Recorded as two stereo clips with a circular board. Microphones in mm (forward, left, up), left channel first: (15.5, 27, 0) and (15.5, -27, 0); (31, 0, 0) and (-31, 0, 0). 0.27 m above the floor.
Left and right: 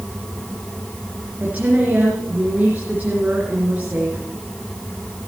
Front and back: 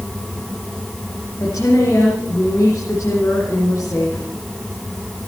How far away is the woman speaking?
About 3.5 m.